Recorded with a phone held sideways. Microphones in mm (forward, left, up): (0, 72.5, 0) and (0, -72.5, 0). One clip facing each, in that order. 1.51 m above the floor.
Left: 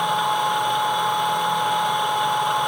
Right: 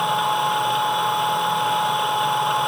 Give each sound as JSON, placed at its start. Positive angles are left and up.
{"t": 0.0, "sound": "a machine running", "side_deg": 0, "distance_m": 0.9}